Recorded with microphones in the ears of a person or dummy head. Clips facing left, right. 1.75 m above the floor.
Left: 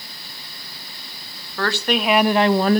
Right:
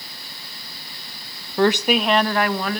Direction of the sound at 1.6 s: 25° right (ahead or behind).